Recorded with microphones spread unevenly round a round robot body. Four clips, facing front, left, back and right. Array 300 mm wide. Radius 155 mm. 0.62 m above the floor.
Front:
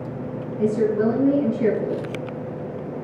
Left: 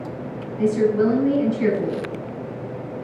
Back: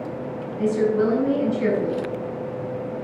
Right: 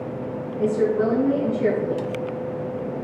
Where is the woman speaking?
90° left, 4 m.